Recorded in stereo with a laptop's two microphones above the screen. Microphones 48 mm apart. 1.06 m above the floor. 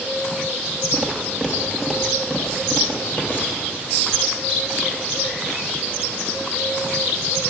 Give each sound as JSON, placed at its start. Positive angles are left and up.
{"t": 0.9, "sound": "footsteps", "side_deg": -10, "distance_m": 1.3}